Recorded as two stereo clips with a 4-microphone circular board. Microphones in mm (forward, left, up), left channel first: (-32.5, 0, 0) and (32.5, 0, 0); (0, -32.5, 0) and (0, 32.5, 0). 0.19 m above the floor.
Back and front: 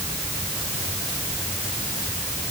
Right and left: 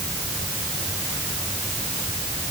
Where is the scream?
No scream in this recording.